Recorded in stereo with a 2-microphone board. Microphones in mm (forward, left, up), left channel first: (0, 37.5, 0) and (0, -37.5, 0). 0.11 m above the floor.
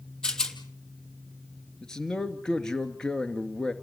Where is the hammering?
I don't hear hammering.